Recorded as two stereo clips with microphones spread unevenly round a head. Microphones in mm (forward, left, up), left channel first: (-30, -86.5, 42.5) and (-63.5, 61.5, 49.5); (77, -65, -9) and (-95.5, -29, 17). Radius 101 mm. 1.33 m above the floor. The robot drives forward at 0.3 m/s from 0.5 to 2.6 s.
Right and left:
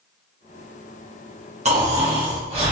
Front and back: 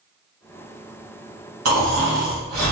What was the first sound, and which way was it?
Snoring, 150° left.